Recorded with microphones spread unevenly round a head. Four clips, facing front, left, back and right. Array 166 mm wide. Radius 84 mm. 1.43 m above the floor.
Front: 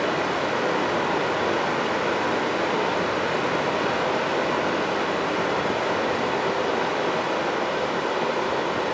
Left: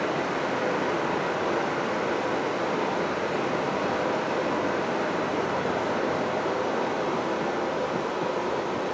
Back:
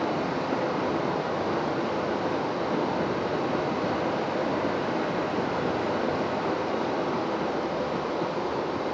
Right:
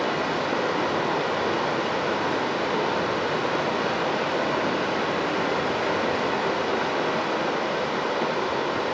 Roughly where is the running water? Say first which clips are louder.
Right 2 dB, front 3 dB; ahead.